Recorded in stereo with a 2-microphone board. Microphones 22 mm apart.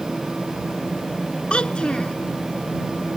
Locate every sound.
1.5 s a child speaking: 55° left (ahead or behind)